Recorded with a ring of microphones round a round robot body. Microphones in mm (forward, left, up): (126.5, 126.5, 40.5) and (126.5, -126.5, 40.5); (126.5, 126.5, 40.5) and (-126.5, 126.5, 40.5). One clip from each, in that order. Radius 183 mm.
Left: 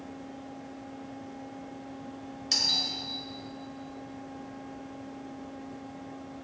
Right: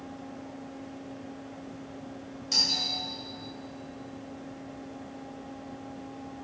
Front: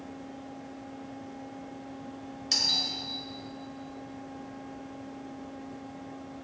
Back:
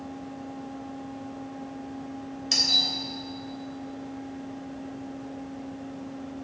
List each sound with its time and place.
2.5 s a doorbell: 90° left, 3 m